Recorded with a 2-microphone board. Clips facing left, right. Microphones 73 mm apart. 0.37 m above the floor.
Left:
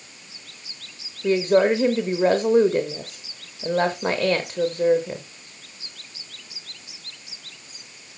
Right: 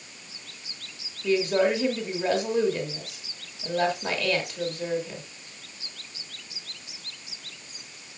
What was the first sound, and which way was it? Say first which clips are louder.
A woman speaking: left 5 dB; 40° left (ahead or behind).